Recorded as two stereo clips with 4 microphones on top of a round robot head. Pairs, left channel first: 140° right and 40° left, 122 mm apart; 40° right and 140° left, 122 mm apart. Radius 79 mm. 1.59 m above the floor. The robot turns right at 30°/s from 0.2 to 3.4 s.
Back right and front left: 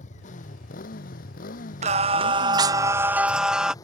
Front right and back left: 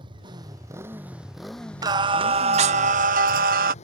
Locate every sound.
0.0 s a motorcycle: 165° right; by 3.8 s 75° right
1.8 s singing: 80° left; by 3.7 s 125° left